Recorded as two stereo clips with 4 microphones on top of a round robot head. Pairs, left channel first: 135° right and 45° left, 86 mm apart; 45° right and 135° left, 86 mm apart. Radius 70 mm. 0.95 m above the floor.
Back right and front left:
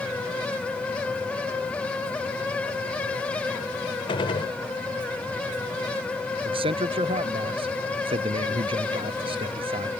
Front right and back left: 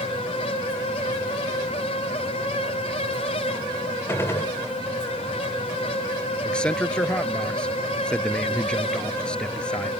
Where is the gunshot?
105° right.